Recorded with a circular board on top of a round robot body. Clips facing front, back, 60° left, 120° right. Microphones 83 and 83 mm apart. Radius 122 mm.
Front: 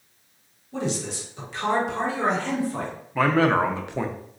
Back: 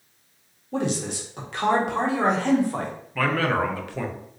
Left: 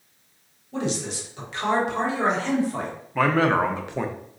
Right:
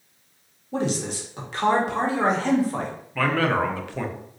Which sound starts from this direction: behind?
A man speaking, at 0.7 s.